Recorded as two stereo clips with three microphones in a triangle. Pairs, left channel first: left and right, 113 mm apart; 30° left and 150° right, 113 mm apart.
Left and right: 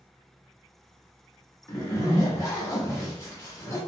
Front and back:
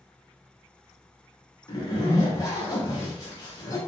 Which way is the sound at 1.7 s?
50° left.